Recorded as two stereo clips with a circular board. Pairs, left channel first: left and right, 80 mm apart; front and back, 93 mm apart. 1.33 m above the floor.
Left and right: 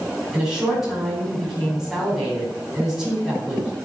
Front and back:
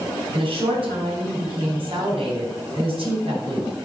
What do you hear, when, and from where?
0.3 s a woman speaking: 170° right, 4.5 m